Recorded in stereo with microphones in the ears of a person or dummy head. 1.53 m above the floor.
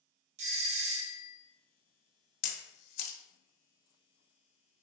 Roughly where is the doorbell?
Right.